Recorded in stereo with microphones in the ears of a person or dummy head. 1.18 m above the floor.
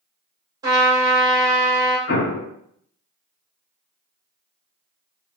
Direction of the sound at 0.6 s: 20° right (ahead or behind).